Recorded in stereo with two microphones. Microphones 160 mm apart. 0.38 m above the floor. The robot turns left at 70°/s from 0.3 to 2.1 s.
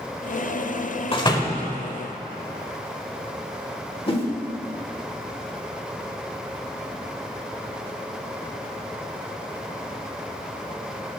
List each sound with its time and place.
1.1 s a door slam: 50° left, 1.1 m; by 1.7 s 10° left, 1.1 m
4.1 s a whoosh: 35° left (ahead or behind), 1.4 m